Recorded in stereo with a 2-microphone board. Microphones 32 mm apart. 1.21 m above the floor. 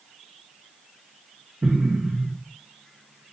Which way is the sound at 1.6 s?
40° right (ahead or behind).